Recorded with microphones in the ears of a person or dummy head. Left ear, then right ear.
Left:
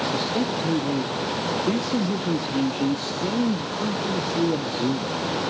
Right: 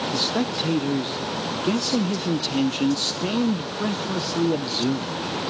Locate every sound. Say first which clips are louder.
0.1 s a man speaking: right 1 dB; 30° right (ahead or behind), 0.6 m